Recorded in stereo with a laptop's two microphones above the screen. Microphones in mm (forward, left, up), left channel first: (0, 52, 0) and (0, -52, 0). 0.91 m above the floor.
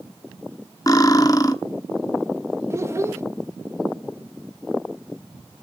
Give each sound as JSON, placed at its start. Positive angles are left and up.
{"t": 0.9, "sound": "cutlery clinking", "side_deg": 35, "distance_m": 0.9}
{"t": 2.7, "sound": "a child speaking", "side_deg": -25, "distance_m": 0.5}